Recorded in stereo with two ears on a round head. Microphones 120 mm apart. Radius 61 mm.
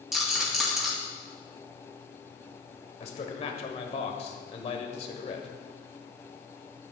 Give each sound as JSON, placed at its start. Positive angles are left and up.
{"t": 0.1, "sound": "a rattle", "side_deg": -5, "distance_m": 3.0}
{"t": 3.0, "sound": "a man speaking", "side_deg": 50, "distance_m": 1.3}